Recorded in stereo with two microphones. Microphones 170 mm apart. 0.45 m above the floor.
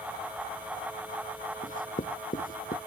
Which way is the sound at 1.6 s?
55° left (ahead or behind).